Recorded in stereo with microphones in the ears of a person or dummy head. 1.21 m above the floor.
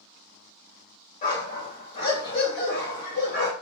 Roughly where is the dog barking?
Left.